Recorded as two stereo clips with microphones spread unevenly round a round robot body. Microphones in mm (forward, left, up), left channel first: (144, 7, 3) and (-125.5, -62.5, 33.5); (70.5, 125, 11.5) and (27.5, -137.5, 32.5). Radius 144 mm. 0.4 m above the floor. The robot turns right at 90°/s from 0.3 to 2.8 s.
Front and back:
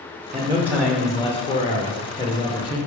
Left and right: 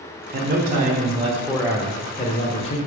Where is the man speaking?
110° right, 0.9 m; by 2.8 s 110° left, 0.9 m.